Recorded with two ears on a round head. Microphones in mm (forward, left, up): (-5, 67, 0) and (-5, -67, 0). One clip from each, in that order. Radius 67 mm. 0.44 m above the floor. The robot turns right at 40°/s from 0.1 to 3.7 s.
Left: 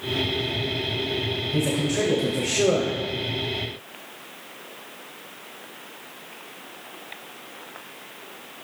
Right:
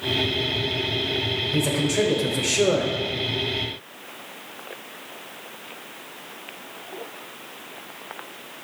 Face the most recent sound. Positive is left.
turn(degrees=-80)